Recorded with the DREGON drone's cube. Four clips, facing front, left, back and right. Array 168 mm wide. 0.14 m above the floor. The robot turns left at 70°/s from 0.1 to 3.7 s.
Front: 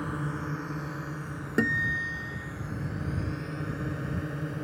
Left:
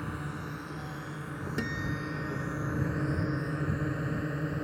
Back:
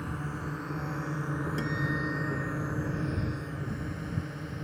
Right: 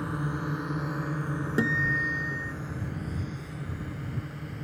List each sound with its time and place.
0.0 s a drone: 45° right; by 4.6 s 60° left
1.6 s a guitar: 35° right; by 2.5 s 100° right